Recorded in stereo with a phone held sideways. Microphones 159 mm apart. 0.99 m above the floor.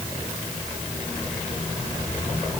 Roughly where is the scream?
No scream in this recording.